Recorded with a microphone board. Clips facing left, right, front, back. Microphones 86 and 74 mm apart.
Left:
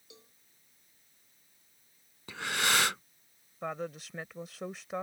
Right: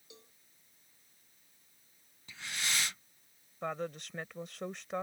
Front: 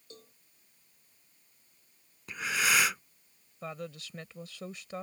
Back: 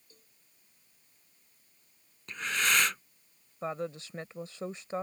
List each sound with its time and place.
0.1 s a cowbell: straight ahead
2.3 s breathing: 80° left
3.6 s a woman speaking: 175° left